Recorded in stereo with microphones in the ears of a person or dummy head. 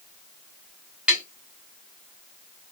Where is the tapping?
5° right (ahead or behind), 0.6 m.